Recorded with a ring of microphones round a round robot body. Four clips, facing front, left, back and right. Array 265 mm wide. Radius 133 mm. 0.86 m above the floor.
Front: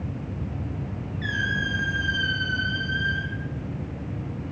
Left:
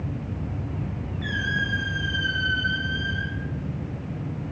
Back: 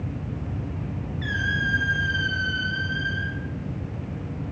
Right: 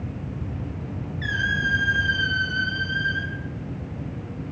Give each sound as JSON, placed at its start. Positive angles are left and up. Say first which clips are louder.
{"t": 1.2, "sound": "a squeak", "louder": "right 3 dB, back 1 dB", "azimuth_deg": -90, "distance_m": 6.5}